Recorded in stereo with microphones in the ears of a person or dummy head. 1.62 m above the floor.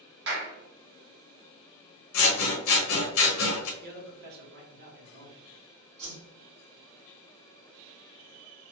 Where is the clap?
55° right (ahead or behind), 0.8 m.